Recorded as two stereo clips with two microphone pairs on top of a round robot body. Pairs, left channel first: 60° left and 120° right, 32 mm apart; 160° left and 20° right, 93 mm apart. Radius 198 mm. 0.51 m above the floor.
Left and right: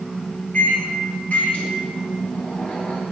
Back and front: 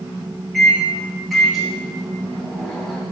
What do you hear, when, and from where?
0.5 s a microwave: 70° left, 1.0 m